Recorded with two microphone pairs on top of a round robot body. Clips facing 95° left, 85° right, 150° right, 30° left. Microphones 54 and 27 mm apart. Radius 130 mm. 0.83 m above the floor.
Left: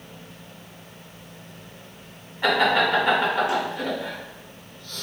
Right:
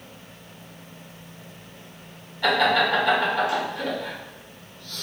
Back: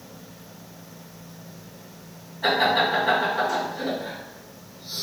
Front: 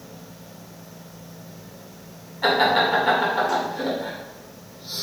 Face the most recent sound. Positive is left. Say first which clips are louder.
# even, front 2 dB
turn(degrees=30)